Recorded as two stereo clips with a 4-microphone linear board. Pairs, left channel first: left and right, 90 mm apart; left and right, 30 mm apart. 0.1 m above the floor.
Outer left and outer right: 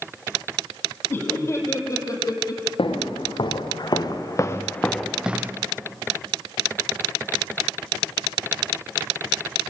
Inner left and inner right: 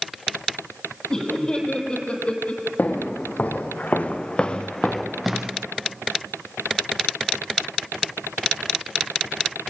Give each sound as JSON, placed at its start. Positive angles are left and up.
{"t": 1.1, "sound": "laughter", "side_deg": 20, "distance_m": 3.5}
{"t": 2.8, "sound": "footsteps", "side_deg": 70, "distance_m": 3.5}